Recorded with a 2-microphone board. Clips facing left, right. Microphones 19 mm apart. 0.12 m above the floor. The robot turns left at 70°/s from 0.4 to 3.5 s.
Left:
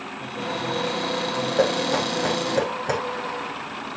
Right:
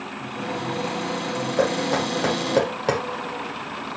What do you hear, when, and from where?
0.2 s a cupboard door: 140° left, 5 m; by 2.6 s 15° right, 5 m
1.6 s knocking: 10° left (ahead or behind), 4 m; by 3.0 s 70° right (ahead or behind), 4 m